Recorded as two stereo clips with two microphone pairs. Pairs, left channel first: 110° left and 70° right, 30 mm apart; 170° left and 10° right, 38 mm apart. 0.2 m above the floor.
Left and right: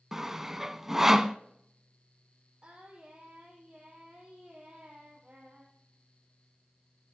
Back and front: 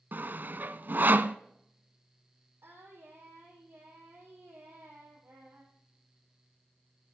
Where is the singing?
25° right, 6 m.